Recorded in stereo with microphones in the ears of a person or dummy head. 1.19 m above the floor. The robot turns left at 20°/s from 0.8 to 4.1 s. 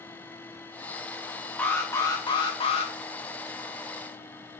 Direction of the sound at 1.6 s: 10° left (ahead or behind).